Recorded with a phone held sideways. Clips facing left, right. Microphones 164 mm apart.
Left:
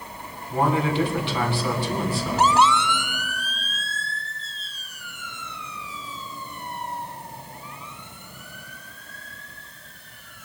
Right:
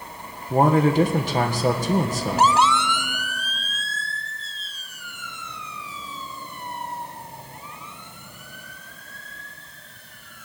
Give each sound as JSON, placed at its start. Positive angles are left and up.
{"t": 0.5, "sound": "a man speaking", "side_deg": -40, "distance_m": 1.6}